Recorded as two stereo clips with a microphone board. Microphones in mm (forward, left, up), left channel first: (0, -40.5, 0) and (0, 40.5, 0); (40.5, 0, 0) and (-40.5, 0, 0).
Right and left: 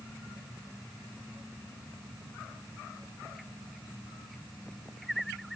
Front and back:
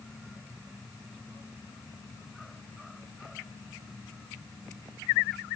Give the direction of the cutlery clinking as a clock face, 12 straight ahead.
I don't hear cutlery clinking.